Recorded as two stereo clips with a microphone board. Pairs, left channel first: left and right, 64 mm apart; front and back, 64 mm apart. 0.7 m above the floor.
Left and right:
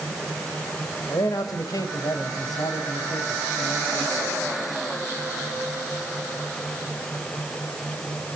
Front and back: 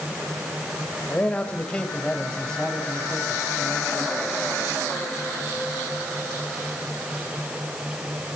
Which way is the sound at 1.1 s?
65° left.